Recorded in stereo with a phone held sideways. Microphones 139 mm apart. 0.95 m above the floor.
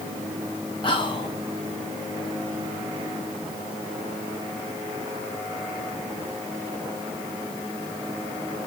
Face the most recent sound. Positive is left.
turn(degrees=40)  # may be behind; listen again after turning